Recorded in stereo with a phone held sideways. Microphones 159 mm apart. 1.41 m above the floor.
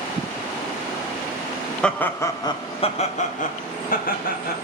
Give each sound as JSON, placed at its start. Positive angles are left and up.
{"t": 1.8, "sound": "laughter", "side_deg": 5, "distance_m": 1.0}